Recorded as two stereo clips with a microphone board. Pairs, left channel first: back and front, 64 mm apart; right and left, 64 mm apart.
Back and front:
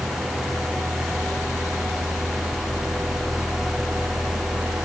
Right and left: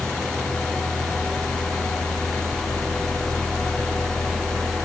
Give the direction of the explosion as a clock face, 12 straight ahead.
No explosion in this recording.